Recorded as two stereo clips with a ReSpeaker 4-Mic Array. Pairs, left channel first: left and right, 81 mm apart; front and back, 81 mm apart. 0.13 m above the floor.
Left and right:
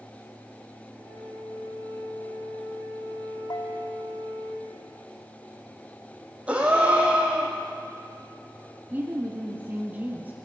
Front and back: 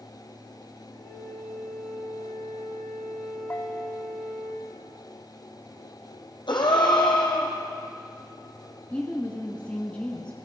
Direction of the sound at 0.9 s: 90° right.